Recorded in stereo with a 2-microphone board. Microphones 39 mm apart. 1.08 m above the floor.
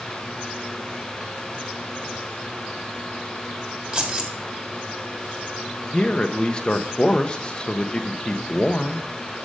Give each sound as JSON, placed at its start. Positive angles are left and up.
{"t": 3.9, "sound": "keys jangling", "side_deg": -30, "distance_m": 1.7}
{"t": 5.9, "sound": "a man speaking", "side_deg": 20, "distance_m": 0.9}